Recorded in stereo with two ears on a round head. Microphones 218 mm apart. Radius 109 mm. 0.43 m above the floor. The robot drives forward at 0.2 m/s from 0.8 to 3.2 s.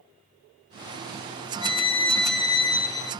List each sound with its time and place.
1.6 s a violin: 25° left (ahead or behind), 0.6 m; by 3.1 s 15° left (ahead or behind), 0.8 m